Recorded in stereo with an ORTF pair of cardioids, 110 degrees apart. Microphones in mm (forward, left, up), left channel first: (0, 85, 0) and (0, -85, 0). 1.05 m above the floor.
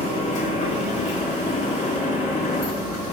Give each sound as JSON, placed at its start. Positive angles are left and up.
{"t": 0.0, "sound": "a machine running", "azimuth_deg": 45, "distance_m": 2.0}